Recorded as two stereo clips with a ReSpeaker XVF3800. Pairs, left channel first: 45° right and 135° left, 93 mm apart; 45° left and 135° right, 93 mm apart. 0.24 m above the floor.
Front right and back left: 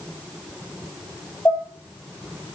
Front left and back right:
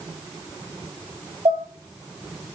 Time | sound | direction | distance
1.4 | dishes clattering | 110° right | 3.5 m